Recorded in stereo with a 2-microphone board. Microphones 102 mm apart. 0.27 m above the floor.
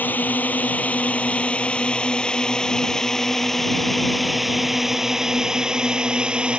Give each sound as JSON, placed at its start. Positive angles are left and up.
{"t": 0.0, "sound": "a drone", "side_deg": 20}